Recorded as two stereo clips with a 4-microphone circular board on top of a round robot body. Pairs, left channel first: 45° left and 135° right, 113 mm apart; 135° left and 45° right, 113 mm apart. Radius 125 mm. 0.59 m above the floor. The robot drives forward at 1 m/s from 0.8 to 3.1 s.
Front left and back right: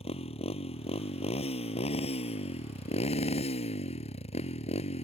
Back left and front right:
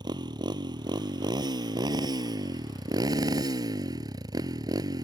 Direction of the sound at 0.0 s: 10° left.